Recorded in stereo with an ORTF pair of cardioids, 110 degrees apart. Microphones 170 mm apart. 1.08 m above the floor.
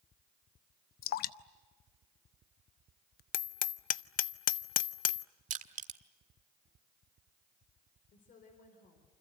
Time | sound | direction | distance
1.0 | dripping | 65° left | 0.8 m
3.3 | hammering | 55° left | 0.6 m
5.5 | crushing | 50° right | 1.5 m
8.1 | a woman speaking | 55° left | 4 m